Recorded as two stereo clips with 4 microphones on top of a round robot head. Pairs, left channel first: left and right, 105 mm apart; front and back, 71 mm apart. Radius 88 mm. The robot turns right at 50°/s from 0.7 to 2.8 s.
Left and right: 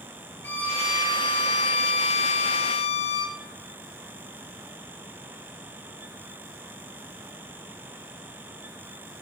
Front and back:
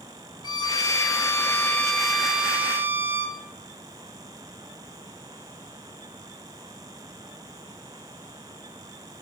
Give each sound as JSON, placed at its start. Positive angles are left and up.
{"t": 0.4, "sound": "a violin", "azimuth_deg": 10, "distance_m": 3.0}